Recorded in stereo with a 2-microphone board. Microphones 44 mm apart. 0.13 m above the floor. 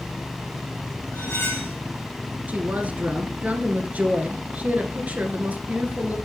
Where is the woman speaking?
35° right (ahead or behind), 1.8 m.